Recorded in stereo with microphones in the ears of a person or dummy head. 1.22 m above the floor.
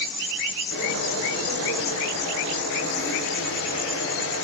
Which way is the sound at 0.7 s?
85° left.